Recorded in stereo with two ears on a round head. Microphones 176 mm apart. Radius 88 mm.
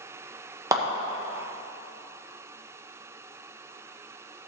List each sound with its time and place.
0.7 s a clap: 15° right (ahead or behind), 1.3 m